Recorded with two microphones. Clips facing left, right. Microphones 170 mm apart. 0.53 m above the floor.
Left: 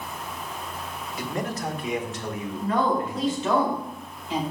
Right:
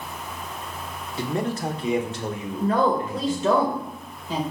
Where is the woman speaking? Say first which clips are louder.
Right 3 dB; 45° right (ahead or behind), 1.9 m.